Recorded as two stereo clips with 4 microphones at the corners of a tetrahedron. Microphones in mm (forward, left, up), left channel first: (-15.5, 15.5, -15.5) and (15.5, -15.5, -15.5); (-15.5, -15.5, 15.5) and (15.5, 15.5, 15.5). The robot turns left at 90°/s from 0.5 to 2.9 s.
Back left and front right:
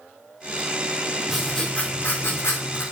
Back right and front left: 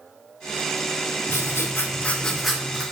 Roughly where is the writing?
Behind right.